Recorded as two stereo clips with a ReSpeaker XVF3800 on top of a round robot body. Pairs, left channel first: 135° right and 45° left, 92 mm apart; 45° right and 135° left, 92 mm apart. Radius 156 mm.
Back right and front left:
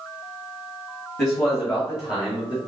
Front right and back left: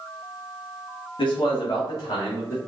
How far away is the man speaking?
About 1.9 m.